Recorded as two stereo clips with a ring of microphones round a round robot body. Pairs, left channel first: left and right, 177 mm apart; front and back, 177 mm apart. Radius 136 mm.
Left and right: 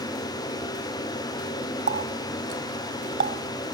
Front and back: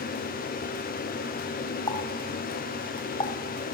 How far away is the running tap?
About 1.6 m.